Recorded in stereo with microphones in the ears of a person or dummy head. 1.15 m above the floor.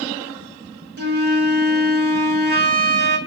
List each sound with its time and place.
1.0 s a flute: 50° right (ahead or behind), 0.6 m